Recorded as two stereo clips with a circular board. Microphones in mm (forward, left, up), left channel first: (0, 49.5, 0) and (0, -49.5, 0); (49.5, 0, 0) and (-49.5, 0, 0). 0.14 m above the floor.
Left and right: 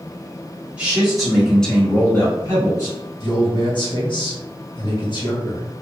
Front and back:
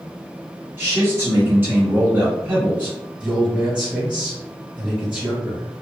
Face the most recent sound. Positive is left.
turn(degrees=105)